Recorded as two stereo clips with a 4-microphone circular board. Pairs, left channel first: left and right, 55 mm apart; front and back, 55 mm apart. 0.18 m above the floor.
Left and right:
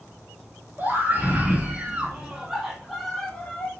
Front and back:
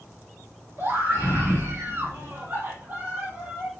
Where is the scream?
135° right, 2.5 m; by 3.7 s 120° left, 1.4 m.